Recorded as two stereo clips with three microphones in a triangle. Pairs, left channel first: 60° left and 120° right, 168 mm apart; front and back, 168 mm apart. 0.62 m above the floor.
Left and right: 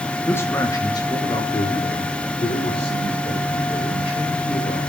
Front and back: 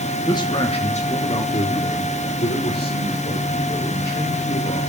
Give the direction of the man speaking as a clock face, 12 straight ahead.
12 o'clock.